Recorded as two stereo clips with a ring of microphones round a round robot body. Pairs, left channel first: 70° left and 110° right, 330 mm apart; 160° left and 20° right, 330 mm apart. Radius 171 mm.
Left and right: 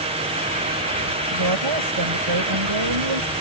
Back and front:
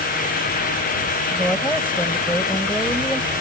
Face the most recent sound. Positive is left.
turn(degrees=-115)